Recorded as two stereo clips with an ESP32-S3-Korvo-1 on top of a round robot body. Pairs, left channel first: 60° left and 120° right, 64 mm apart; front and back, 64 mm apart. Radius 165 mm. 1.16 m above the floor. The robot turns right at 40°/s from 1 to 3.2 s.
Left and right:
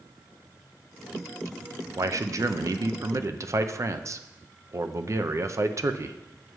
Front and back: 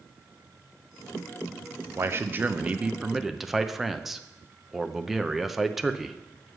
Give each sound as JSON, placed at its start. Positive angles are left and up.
{"t": 2.0, "sound": "a man speaking", "azimuth_deg": -145, "distance_m": 0.7}